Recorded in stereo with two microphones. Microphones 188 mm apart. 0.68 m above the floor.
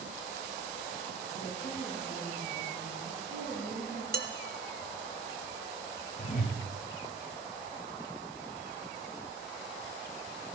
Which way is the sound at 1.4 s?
45° left (ahead or behind).